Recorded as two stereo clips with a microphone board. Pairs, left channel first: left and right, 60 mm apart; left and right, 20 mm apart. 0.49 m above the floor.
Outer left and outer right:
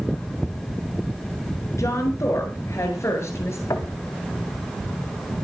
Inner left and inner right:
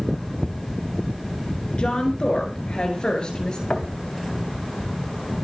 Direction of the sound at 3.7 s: 70° left (ahead or behind).